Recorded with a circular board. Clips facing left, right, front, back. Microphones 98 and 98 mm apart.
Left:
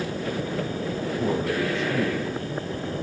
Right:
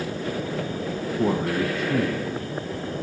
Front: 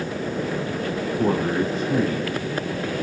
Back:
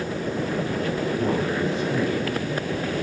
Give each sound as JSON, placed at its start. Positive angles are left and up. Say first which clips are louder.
{"t": 1.2, "sound": "a man speaking", "louder": "right 3 dB, front 6 dB", "azimuth_deg": -60, "distance_m": 3.0}